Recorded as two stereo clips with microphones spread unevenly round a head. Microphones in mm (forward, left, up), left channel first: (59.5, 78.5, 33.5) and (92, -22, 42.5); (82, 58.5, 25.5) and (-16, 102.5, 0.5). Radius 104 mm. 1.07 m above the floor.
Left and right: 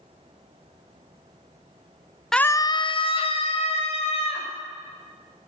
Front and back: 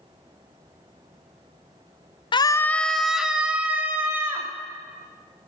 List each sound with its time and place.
2.3 s a scream: 25° left, 0.5 m; by 4.5 s 80° left, 2.5 m